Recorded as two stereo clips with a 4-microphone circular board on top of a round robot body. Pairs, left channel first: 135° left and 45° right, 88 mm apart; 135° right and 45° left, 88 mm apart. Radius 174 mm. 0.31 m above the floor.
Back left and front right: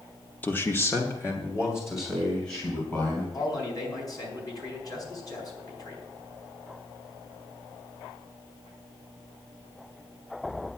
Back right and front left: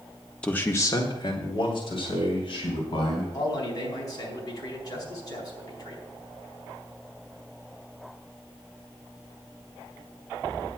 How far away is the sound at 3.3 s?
About 4.5 m.